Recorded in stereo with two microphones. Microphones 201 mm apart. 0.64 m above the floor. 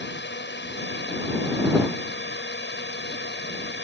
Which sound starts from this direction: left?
A drone, at 0.0 s.